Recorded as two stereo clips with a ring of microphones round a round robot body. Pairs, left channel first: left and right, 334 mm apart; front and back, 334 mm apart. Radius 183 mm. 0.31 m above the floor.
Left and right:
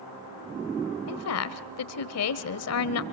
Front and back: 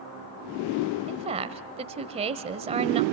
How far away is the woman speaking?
About 1.2 m.